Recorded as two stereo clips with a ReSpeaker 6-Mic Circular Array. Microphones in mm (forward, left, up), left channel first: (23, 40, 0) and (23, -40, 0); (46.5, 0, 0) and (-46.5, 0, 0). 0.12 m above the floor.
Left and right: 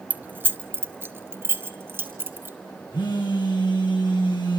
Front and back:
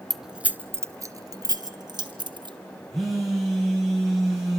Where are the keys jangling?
85° right, 0.7 m; by 2.6 s 150° right, 2 m.